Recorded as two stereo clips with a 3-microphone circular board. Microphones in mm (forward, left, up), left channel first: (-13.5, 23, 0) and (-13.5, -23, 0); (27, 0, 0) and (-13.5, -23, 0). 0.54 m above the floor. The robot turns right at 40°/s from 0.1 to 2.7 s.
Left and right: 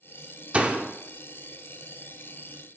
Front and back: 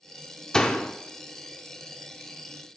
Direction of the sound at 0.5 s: 40° right.